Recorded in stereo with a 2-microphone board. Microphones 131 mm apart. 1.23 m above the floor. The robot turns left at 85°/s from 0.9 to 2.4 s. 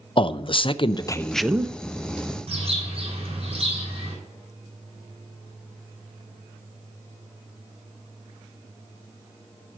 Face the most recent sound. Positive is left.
turn(degrees=-50)  # may be behind; listen again after turning